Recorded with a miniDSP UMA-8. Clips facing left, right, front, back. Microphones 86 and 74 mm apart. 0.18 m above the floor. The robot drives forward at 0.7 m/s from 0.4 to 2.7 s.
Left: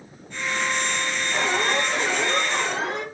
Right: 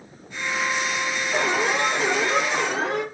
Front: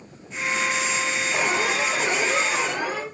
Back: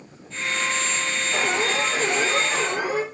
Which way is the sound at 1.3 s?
115° right.